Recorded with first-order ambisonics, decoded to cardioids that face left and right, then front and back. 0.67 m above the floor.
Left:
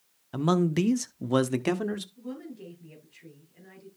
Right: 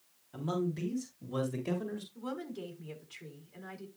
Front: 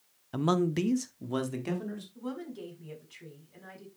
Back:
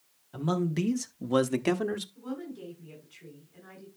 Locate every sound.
0.3 s a man speaking: 50° left, 0.9 m; by 2.0 s 130° left, 1.3 m
2.1 s a woman speaking: 60° right, 5.5 m